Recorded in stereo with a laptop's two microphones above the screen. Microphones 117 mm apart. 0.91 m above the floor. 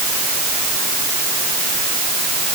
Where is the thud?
I don't hear a thud.